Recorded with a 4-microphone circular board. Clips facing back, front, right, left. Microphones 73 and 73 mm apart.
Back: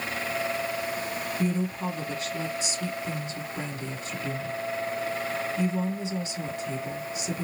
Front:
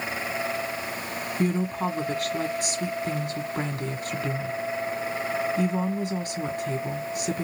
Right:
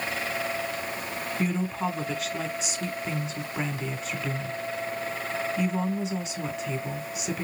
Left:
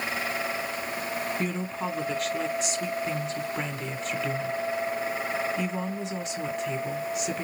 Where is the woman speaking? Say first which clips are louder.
Front 4 dB, right 2 dB; straight ahead, 1.4 m.